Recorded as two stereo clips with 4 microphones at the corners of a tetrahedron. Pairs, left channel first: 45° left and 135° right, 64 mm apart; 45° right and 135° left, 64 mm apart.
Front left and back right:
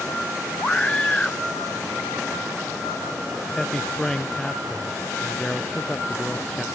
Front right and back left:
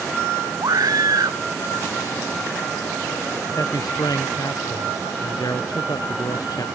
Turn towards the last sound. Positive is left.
turn(degrees=-35)